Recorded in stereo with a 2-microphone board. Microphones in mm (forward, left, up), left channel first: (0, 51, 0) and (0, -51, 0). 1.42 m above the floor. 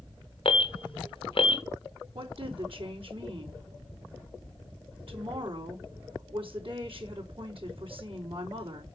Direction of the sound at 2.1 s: 65° right (ahead or behind).